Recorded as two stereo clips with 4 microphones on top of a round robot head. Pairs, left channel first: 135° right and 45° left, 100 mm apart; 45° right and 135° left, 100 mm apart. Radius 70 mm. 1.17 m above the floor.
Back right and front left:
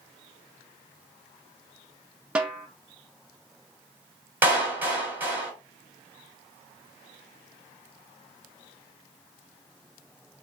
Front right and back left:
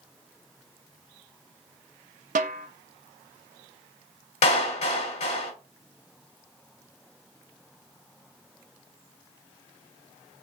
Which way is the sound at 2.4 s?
125° left.